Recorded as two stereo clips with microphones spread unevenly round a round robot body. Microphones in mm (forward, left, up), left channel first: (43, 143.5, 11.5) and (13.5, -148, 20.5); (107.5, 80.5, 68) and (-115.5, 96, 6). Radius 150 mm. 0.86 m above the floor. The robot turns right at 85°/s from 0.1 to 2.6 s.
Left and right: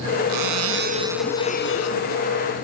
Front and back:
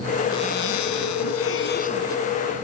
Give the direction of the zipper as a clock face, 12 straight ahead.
3 o'clock.